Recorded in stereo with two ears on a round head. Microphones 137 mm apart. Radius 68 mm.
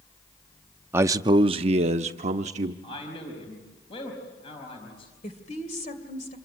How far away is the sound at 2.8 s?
About 4.5 m.